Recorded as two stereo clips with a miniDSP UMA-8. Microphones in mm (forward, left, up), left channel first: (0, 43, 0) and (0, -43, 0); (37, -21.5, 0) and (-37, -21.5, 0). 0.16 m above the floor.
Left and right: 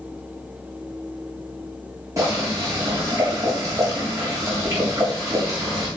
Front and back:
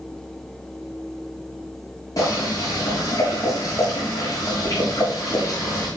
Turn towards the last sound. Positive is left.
turn(degrees=-40)